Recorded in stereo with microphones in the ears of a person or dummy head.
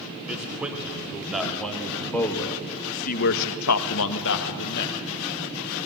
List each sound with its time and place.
0.2 s a man speaking: 5° right (ahead or behind), 3 m; by 5.0 s 55° left (ahead or behind), 1.6 m